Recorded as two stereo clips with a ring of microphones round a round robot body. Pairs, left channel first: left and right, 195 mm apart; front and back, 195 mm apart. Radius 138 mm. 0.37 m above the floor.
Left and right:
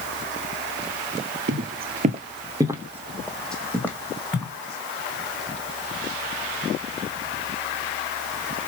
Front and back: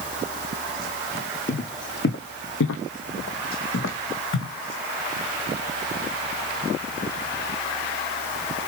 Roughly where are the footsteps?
Ahead right.